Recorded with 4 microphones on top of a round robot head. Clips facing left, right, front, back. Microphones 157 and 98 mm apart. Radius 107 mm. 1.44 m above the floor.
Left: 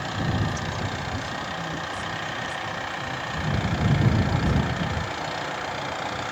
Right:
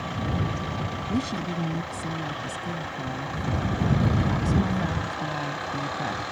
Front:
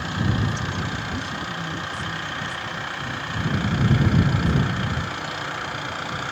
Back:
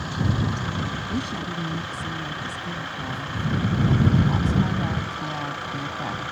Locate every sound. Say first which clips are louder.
1.1 s a woman speaking: right 5 dB, back 1 dB; 125° right; by 6.2 s 135° right